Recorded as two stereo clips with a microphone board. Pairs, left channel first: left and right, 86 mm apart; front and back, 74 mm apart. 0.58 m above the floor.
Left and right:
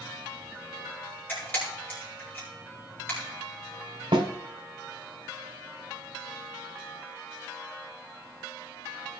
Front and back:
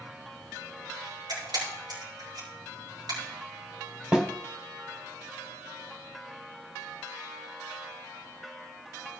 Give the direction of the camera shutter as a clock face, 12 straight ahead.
7 o'clock.